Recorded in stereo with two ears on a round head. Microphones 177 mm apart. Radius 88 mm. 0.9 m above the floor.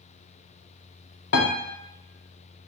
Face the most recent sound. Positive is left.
turn(degrees=60)  # may be behind; listen again after turning